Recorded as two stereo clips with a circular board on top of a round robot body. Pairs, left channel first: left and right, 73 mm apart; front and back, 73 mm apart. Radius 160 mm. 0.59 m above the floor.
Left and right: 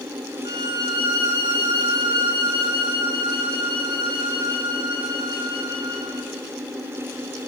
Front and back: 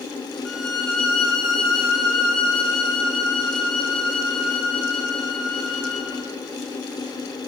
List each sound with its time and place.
0.5 s a violin: 85° right, 4.5 m